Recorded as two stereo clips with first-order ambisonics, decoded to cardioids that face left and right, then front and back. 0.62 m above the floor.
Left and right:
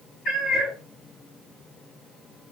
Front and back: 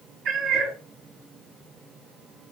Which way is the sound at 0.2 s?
145° left.